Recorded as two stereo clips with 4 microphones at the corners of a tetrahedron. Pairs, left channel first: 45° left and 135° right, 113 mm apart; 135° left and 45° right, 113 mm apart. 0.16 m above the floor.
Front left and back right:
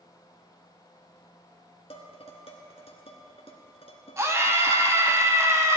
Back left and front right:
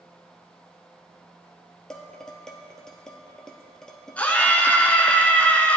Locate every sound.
1.9 s dishes clattering: 50° left, 1.7 m
4.2 s a scream: 165° right, 1.4 m